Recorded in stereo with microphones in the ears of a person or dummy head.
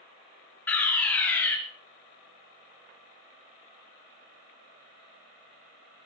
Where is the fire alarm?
5° left (ahead or behind), 1.7 m.